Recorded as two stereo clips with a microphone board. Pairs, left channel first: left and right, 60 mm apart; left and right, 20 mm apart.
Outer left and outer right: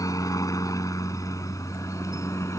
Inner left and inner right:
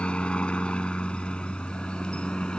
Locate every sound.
0.0 s a helicopter: 70° left (ahead or behind); by 2.6 s 55° left (ahead or behind)